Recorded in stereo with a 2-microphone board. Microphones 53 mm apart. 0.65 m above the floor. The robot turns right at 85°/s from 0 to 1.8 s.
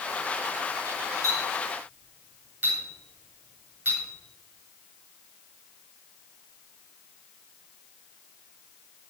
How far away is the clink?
About 7.5 m.